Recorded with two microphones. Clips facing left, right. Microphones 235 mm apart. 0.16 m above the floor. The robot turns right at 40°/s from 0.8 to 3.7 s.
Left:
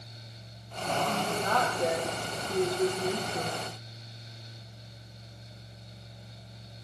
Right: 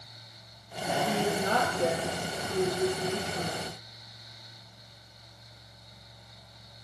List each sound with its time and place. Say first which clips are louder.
1.1 s a woman speaking: right 6 dB; 40° right, 4.5 m; by 3.6 s 60° left, 4.5 m